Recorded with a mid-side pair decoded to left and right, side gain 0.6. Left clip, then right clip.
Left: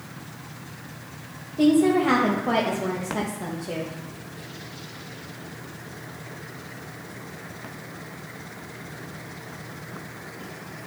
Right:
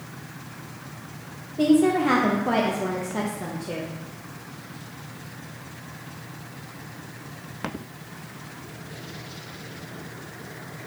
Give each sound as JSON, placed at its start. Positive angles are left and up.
{"t": 1.6, "sound": "a woman speaking", "azimuth_deg": 0, "distance_m": 0.9}